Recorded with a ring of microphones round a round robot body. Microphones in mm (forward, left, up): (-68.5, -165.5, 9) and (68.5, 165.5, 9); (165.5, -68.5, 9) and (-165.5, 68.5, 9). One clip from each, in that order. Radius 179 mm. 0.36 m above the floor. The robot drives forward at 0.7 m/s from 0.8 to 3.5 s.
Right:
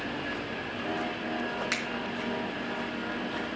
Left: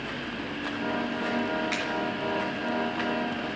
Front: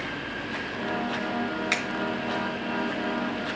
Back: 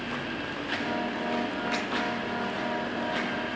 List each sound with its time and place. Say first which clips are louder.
1.7 s a finger snap: left 1 dB, front 5 dB; 50° right, 2.5 m; by 1.8 s 55° right, 2.5 m